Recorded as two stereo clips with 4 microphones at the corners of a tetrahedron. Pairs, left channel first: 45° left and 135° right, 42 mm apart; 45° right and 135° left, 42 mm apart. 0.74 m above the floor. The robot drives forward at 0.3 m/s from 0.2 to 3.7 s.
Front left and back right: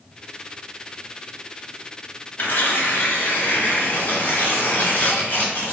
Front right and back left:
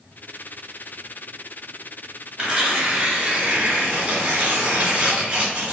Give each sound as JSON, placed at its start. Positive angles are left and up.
{"t": 2.4, "sound": "tearing paper", "azimuth_deg": 75, "distance_m": 1.6}